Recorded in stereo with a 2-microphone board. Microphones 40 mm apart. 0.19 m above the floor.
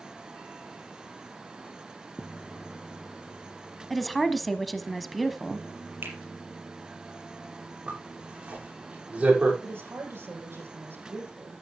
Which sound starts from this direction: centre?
A woman speaking, at 3.9 s.